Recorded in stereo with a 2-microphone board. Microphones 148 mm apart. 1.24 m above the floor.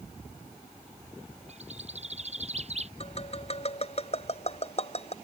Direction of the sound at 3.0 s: 45° left (ahead or behind).